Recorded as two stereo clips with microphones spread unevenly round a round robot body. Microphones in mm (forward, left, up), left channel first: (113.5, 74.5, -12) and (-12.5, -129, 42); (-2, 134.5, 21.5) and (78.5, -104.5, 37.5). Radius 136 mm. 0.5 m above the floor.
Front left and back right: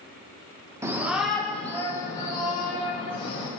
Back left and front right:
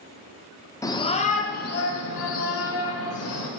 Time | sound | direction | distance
0.8 | a shout | 145° left | 0.8 m